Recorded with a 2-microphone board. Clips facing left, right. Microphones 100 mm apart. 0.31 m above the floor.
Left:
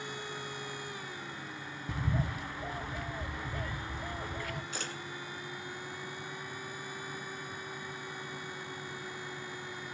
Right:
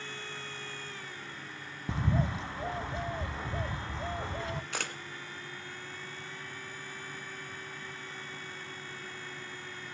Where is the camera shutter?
70° right (ahead or behind), 1.6 m.